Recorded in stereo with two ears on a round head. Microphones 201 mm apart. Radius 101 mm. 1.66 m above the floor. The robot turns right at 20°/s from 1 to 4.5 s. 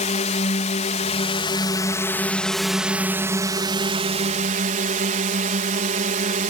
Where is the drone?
145° left; by 6.5 s 145° right.